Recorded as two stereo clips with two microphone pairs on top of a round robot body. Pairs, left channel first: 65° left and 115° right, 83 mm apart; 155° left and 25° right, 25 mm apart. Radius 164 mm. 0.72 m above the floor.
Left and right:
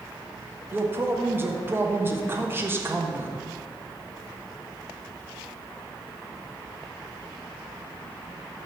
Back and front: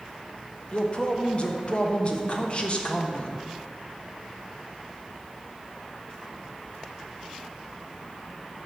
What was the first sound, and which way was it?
A man speaking, 175° left.